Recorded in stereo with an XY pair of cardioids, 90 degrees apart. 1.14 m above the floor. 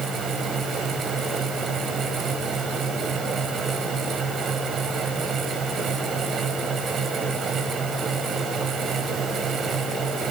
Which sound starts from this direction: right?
A fan, at 0.0 s.